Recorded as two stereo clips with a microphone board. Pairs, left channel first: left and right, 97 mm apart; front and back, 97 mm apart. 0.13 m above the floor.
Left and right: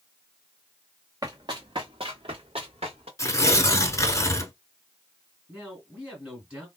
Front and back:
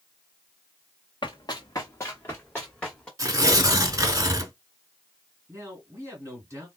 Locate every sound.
1.2 s running footsteps: 40° right, 0.8 m; by 3.1 s 80° right, 1.5 m
3.2 s tearing paper: 135° left, 0.7 m
5.5 s a man speaking: 160° right, 1.8 m